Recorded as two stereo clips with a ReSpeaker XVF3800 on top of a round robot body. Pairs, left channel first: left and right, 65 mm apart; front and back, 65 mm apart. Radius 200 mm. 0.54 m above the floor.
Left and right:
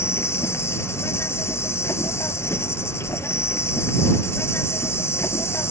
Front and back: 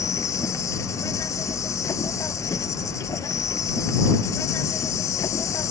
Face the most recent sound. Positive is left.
turn(degrees=40)